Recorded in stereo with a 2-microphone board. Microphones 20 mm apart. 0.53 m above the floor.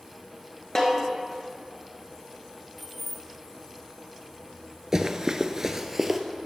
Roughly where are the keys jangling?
Centre.